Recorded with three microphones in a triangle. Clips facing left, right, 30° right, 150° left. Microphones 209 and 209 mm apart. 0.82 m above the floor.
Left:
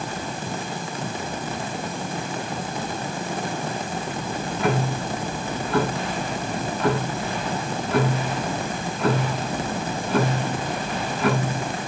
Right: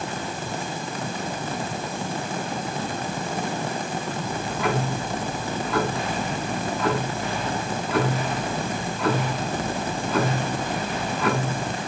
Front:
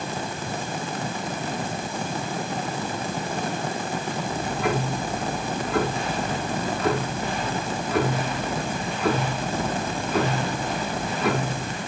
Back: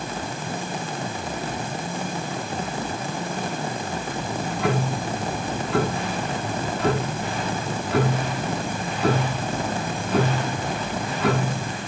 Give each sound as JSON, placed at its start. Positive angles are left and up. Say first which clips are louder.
{"t": 4.2, "sound": "ticking", "louder": "left 3 dB, back 2 dB", "azimuth_deg": 155, "distance_m": 7.0}